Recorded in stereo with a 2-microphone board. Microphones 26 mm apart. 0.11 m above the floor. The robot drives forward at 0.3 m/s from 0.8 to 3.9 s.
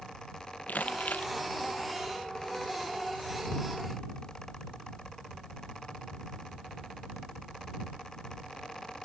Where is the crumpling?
85° left.